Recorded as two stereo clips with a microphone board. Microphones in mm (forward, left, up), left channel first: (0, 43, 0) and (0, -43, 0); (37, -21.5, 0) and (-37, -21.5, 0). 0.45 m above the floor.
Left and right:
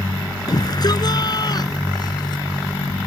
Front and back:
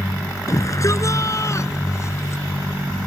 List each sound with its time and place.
0.5 s a shout: 50° left; by 2.4 s 55° left